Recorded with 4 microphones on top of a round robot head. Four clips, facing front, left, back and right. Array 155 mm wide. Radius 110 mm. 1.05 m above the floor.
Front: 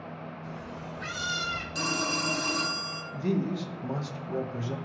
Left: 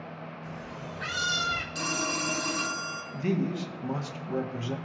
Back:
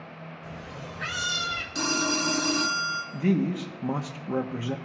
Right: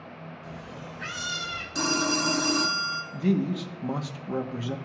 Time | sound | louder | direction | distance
0.4 | a cat meowing | even, even | 150° right | 1.4 m
1.8 | a phone ringing | right 5 dB, back 4 dB | 125° right | 1.0 m
3.1 | a man speaking | right 3 dB, back 3 dB | 155° right | 1.4 m